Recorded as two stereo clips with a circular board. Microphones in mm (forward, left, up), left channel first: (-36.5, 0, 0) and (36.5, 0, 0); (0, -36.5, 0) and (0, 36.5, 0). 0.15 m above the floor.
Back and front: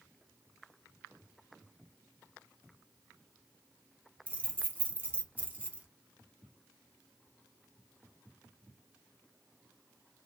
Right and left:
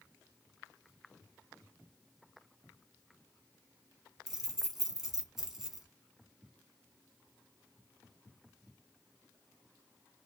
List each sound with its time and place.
4.3 s keys jangling: 15° left, 0.7 m